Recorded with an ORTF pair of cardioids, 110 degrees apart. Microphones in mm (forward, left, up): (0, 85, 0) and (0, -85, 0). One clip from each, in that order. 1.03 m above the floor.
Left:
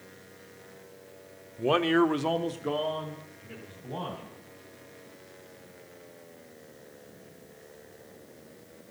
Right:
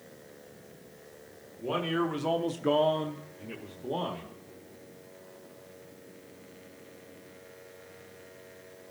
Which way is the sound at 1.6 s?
55° left.